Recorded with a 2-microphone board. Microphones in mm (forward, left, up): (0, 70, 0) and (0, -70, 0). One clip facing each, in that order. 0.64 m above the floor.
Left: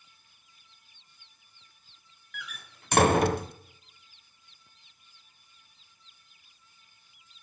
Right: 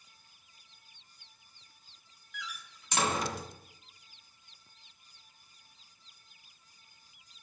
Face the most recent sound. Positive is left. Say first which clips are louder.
# even
turn(degrees=60)  # may be behind; listen again after turning